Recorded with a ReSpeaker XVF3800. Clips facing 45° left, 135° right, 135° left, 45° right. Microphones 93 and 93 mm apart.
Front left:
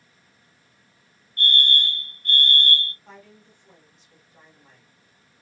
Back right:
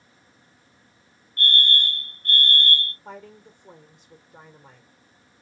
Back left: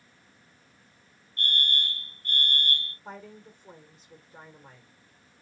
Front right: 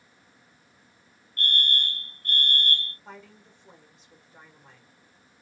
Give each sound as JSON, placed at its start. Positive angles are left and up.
{"t": 1.4, "sound": "a fire alarm", "azimuth_deg": -85, "distance_m": 1.7}
{"t": 3.0, "sound": "a woman speaking", "azimuth_deg": -155, "distance_m": 1.3}